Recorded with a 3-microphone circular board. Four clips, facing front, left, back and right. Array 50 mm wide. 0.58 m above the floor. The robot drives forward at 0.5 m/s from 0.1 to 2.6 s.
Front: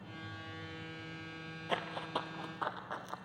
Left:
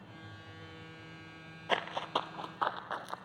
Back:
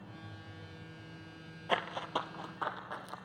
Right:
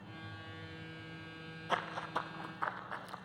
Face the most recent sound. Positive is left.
turn(degrees=75)